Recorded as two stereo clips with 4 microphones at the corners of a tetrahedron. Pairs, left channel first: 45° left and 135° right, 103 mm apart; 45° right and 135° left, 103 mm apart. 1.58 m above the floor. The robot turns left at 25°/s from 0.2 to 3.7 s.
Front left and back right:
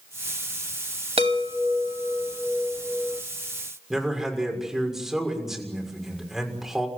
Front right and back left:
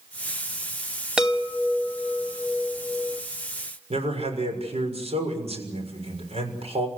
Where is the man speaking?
140° left, 6.5 m.